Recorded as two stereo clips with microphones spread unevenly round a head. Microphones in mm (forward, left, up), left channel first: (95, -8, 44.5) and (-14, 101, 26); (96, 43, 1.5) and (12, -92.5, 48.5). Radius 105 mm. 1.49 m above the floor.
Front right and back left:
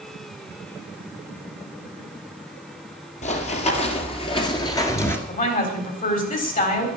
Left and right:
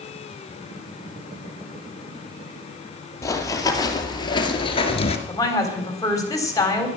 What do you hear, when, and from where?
3.2 s running footsteps: 20° right, 2.5 m; by 5.2 s 5° left, 1.7 m
5.3 s a woman speaking: 15° right, 4 m